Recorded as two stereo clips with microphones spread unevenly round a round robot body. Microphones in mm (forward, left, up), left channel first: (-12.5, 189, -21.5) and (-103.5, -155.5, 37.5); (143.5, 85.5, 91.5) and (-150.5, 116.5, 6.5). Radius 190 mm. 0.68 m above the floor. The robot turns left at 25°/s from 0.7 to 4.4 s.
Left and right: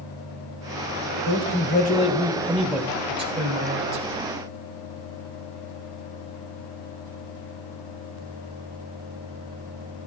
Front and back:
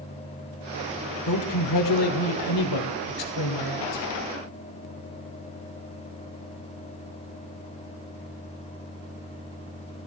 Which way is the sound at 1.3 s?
20° left.